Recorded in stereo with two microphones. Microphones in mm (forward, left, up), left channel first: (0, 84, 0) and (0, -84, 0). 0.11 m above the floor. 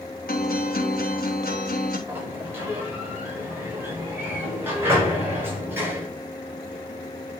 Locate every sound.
0.3 s a guitar: 75° left (ahead or behind), 3.5 m
2.1 s a sliding door: 15° right (ahead or behind), 8 m